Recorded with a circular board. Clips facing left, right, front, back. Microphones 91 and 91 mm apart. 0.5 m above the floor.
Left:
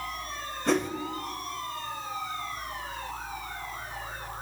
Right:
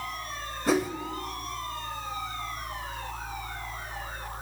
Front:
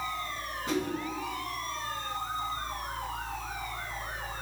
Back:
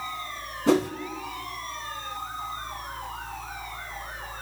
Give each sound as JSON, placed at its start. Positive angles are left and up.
{"t": 0.7, "sound": "a whoosh", "azimuth_deg": -175, "distance_m": 0.8}